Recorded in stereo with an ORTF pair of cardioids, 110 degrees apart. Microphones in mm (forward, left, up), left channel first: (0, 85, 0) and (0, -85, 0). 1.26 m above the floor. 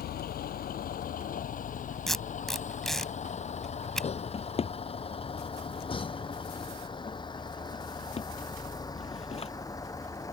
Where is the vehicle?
60° left; by 10.3 s 20° left.